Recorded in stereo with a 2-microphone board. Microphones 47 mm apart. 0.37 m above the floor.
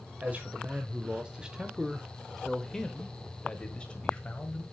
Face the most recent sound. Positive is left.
turn(degrees=25)  # may be behind; listen again after turning